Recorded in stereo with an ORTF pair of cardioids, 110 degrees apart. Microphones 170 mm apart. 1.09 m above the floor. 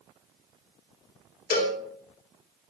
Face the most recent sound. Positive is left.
turn(degrees=60)